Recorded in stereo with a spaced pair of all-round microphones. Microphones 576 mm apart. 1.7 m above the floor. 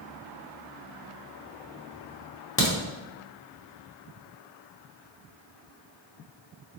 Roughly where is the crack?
Left.